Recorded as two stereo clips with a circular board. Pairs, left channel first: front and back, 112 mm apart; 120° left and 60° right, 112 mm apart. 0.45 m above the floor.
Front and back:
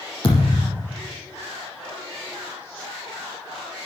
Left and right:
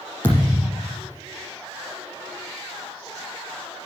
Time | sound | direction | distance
0.2 | a thud | 50° left | 7.5 m